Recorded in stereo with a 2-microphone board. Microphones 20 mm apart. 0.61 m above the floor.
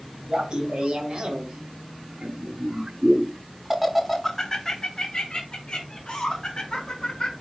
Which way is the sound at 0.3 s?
45° right (ahead or behind).